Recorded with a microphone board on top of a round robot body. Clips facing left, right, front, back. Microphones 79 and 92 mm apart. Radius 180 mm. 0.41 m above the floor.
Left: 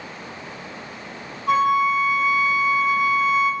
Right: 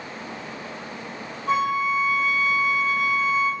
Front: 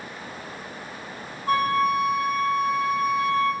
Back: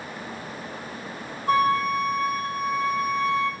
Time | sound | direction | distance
1.5 | a flute | 5° left | 1.5 m